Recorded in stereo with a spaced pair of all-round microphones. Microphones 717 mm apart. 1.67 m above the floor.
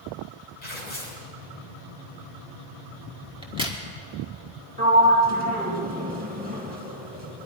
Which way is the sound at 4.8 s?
10° right (ahead or behind).